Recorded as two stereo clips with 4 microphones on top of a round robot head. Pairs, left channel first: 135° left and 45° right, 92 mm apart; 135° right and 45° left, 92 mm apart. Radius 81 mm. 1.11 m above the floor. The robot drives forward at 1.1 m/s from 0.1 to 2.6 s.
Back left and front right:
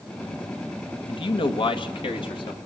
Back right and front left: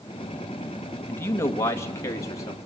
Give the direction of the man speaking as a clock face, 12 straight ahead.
7 o'clock.